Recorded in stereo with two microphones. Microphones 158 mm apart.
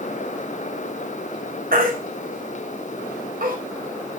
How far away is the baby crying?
About 4.5 m.